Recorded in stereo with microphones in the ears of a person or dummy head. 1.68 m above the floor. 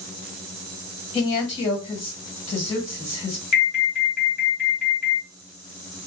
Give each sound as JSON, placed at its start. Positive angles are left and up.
{"t": 1.1, "sound": "a woman speaking", "side_deg": 30, "distance_m": 1.6}
{"t": 3.5, "sound": "an alarm", "side_deg": 50, "distance_m": 1.5}